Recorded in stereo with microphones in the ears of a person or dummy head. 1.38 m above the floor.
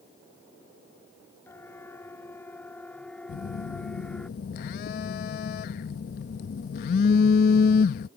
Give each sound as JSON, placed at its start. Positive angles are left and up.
{"t": 1.5, "sound": "a siren", "side_deg": 15}
{"t": 3.3, "sound": "a phone buzzing", "side_deg": 50}